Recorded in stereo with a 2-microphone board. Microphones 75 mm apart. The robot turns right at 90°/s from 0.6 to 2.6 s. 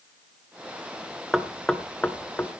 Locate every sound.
1.3 s knocking: 5° right (ahead or behind), 0.8 m; by 2.5 s 25° left (ahead or behind), 0.8 m